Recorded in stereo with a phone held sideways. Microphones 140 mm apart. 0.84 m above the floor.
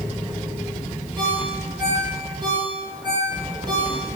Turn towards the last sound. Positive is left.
turn(degrees=-35)  # may be behind; listen again after turning